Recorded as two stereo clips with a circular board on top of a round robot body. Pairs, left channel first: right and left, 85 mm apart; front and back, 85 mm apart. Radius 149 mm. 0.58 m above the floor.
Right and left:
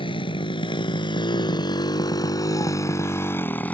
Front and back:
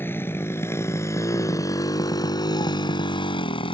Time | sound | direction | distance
0.0 | a motorcycle | 65° right | ?